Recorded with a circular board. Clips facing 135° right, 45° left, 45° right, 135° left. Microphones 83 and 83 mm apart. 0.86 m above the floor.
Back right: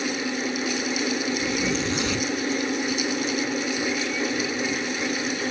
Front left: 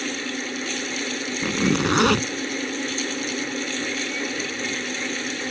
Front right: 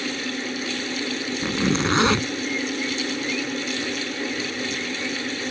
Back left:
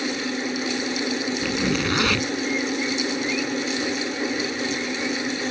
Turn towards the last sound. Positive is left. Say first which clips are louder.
# front left 3 dB, front right 4 dB
turn(degrees=20)